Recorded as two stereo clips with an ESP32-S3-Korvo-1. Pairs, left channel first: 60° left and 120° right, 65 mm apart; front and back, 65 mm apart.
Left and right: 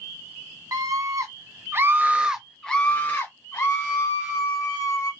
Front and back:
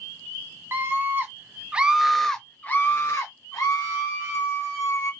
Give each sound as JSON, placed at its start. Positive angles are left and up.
{"t": 0.7, "sound": "a scream", "azimuth_deg": -130, "distance_m": 1.0}